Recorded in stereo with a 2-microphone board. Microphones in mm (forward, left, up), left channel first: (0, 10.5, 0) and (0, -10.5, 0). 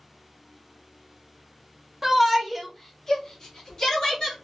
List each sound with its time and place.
2.0 s a shout: 15° right (ahead or behind), 0.8 m; by 4.3 s 35° left (ahead or behind), 1.2 m